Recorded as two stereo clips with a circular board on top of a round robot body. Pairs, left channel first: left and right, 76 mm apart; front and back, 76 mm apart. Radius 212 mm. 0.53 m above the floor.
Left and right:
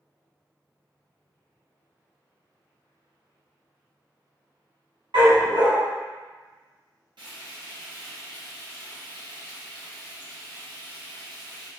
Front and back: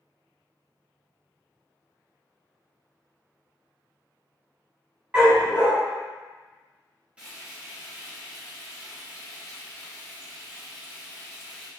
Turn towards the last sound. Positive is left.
turn(degrees=-105)